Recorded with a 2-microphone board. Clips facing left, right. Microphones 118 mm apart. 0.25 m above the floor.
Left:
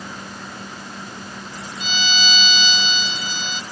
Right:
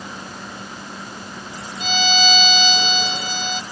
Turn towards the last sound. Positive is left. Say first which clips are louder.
# right 5 dB
turn(degrees=-55)  # may be behind; listen again after turning